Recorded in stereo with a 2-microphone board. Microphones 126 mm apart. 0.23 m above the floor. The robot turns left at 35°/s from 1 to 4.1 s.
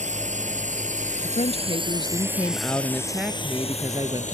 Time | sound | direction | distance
0.0 | a drone | 70° right (ahead or behind) | ?
1.2 | a woman speaking | 65° left | ?